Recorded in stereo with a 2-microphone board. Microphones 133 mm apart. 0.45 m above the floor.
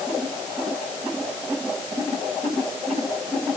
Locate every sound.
Only background noise.